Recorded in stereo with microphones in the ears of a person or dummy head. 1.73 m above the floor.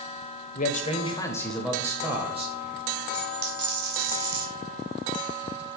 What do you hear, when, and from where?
0.6 s a man speaking: 45° left (ahead or behind), 0.8 m; by 2.5 s 30° right (ahead or behind), 1.1 m
3.1 s a dropped coin: 60° right (ahead or behind), 2.5 m